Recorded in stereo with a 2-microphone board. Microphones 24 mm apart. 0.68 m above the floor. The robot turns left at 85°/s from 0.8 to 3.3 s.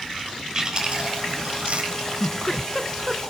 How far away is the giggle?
About 1.1 m.